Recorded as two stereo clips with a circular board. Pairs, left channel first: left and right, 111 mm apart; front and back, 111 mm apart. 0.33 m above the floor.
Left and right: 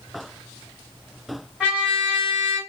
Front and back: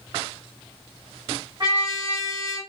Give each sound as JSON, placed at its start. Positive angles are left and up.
{"t": 1.6, "sound": "a trumpet", "azimuth_deg": 165, "distance_m": 1.8}